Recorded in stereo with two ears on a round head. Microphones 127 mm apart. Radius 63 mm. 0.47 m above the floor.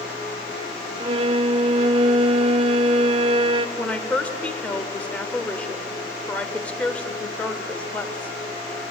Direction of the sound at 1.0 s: 40° right (ahead or behind).